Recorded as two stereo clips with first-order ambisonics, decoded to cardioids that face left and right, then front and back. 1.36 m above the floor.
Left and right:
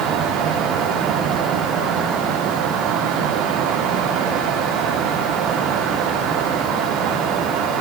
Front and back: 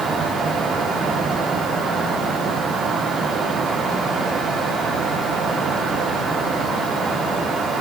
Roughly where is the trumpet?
I don't hear a trumpet.